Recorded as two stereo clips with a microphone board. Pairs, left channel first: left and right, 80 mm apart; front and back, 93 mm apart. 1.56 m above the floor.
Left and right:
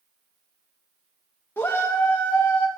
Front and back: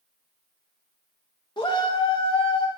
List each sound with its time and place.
1.6 s a shout: 25° left, 1.7 m